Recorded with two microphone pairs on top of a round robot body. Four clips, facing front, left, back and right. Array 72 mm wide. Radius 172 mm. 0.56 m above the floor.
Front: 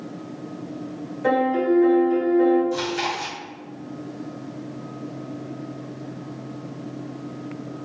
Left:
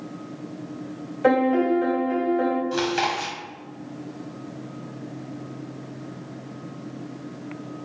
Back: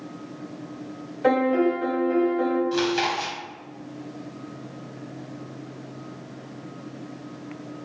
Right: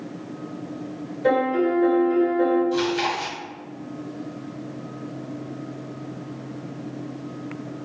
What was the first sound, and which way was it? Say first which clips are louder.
A piano: left 1 dB, even; 90° left.